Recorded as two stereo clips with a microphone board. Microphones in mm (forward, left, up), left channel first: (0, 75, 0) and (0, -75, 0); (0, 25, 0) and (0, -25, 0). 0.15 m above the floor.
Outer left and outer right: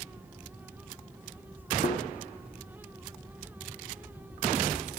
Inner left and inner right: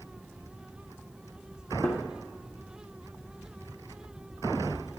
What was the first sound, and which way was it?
A thud, 80° right.